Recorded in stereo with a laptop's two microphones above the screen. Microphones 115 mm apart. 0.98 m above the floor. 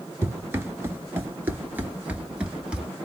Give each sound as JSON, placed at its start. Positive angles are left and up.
{"t": 0.2, "sound": "running footsteps", "side_deg": -25, "distance_m": 1.1}